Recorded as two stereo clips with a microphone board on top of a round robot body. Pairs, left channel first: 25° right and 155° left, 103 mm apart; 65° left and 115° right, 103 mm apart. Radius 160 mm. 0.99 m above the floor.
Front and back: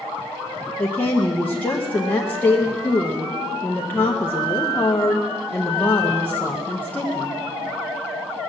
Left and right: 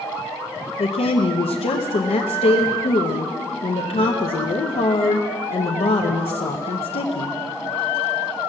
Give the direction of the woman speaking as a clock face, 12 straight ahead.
10 o'clock.